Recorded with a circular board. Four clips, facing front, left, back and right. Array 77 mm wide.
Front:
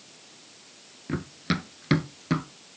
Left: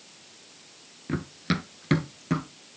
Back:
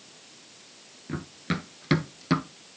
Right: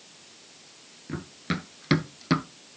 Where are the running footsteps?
55° left, 1.0 m; by 2.5 s 110° right, 1.1 m.